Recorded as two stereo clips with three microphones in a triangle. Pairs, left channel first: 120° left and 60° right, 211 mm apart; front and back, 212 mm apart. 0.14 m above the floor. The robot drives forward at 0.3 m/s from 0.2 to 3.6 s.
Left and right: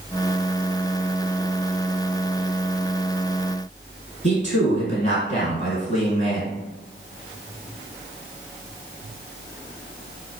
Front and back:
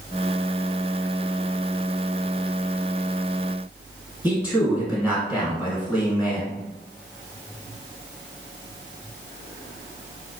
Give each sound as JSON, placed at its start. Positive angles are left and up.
{"t": 4.2, "sound": "a man speaking", "azimuth_deg": 100, "distance_m": 1.5}